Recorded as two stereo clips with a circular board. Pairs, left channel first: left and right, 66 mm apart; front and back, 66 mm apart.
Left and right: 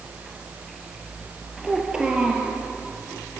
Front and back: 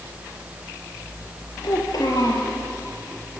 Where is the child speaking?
15° right, 4.5 m.